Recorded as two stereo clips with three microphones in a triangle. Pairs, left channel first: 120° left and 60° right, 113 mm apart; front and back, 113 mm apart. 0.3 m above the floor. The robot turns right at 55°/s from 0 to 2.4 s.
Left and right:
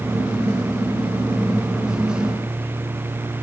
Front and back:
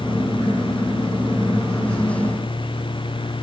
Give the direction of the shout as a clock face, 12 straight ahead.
No shout in this recording.